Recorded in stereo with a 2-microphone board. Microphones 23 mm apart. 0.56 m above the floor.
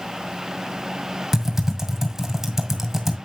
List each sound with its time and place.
1.3 s typing on a keyboard: 20° right (ahead or behind), 1.8 m